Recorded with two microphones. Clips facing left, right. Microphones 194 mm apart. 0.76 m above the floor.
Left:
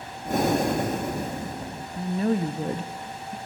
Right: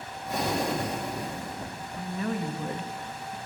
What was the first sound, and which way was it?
Breathing, 50° left (ahead or behind).